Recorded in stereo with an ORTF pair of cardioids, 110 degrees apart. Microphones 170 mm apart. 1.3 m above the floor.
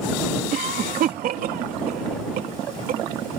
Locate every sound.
0.5 s a cough: 60° right